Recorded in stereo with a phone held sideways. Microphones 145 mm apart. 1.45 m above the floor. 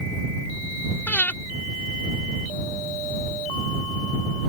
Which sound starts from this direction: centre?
Breathing, at 1.1 s.